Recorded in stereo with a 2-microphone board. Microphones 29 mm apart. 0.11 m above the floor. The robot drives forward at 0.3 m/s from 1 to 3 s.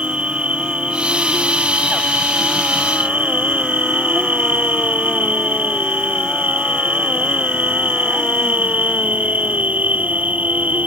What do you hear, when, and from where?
0.0 s an insect: 45° right (ahead or behind); by 10.9 s 60° right (ahead or behind)